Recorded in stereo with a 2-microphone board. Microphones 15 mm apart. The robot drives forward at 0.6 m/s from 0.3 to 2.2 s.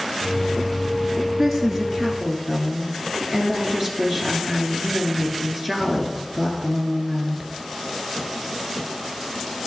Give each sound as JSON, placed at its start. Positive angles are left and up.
{"t": 1.4, "sound": "a woman speaking", "side_deg": -20, "distance_m": 1.2}